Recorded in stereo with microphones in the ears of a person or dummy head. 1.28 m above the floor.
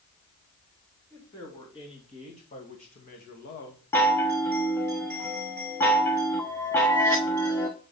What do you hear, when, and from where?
1.1 s a woman speaking: 20° left (ahead or behind), 2.5 m; by 3.8 s 60° left (ahead or behind), 1.7 m
3.9 s a chime: 15° left (ahead or behind), 0.6 m